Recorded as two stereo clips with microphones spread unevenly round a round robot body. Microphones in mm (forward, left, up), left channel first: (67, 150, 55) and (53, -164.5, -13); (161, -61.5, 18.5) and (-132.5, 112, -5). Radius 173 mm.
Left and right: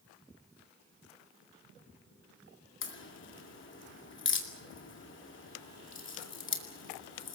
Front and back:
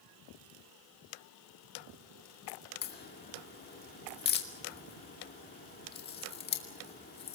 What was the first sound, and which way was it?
A crack, 30° left.